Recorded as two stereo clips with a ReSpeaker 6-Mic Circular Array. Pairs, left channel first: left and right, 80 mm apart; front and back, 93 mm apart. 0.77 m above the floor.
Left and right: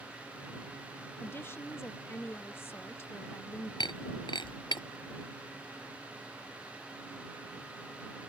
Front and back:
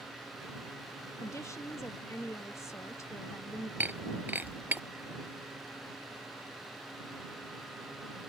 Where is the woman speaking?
40° left.